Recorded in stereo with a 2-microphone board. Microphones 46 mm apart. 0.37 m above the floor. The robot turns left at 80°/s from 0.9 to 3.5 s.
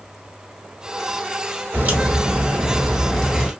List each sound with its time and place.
1.7 s a crack: 70° right, 1.2 m; by 3.5 s 150° left, 1.2 m